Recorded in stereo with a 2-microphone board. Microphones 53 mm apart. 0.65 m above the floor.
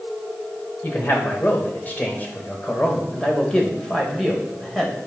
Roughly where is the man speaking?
Left.